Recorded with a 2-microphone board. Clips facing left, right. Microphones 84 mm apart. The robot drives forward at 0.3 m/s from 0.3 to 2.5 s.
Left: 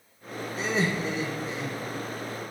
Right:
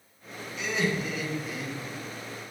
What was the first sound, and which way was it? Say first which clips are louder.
Laughter: left 1 dB; 35° left (ahead or behind).